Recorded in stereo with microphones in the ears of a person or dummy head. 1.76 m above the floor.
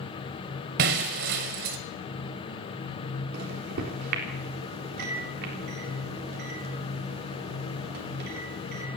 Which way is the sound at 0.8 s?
55° right (ahead or behind).